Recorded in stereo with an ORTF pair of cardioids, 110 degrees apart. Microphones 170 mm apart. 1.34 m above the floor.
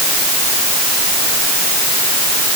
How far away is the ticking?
No ticking in this recording.